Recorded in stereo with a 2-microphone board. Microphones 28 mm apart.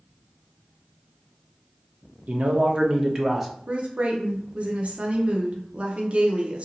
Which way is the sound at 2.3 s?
65° right (ahead or behind).